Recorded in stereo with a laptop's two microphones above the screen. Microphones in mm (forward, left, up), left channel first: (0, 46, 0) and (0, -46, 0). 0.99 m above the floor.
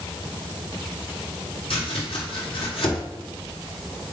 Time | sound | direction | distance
1.7 | chopping | 75° left (ahead or behind) | 2.5 m